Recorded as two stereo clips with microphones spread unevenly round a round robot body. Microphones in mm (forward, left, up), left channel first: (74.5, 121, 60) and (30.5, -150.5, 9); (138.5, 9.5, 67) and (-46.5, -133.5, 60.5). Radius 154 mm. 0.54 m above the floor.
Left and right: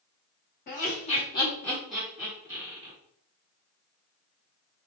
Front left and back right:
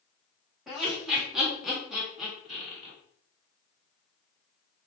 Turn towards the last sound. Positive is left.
turn(degrees=-55)